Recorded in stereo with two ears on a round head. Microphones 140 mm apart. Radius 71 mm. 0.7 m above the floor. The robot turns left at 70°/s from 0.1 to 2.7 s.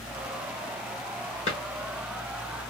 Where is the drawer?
40° left (ahead or behind), 1.4 m; by 1.6 s 50° left (ahead or behind), 1.4 m.